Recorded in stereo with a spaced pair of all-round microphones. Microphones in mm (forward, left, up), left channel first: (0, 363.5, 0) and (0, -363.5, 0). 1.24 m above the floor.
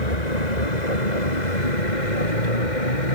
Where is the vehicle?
65° left (ahead or behind); by 3.2 s 80° left.